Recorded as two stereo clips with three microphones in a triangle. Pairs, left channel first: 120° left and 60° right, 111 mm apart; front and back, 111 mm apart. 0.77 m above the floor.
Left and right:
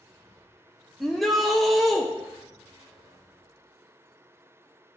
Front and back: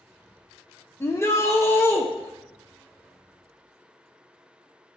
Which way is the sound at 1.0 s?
35° left.